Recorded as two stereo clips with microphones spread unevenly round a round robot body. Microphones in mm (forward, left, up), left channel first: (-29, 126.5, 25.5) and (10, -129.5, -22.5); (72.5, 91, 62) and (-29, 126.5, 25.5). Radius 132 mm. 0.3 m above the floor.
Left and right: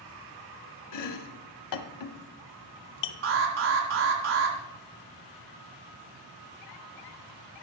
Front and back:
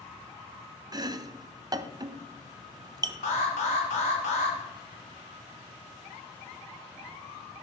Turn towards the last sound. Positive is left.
turn(degrees=-50)